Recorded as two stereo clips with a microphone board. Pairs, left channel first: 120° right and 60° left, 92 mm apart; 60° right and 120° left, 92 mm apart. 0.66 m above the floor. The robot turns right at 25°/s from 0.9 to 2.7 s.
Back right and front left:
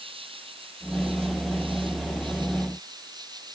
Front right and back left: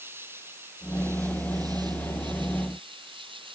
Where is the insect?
55° left; by 3.6 s 100° left.